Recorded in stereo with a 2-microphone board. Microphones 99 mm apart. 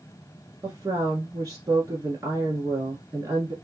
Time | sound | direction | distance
0.6 | a woman speaking | 35° right (ahead or behind) | 1.3 m